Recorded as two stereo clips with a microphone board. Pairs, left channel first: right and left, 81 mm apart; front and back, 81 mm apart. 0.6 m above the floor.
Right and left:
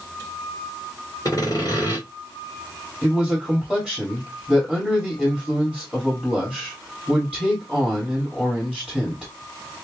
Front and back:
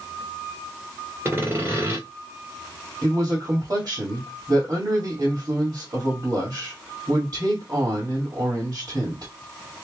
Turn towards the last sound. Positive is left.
turn(degrees=-170)